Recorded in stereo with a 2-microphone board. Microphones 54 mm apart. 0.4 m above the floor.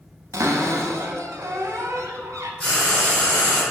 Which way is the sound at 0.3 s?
90° right.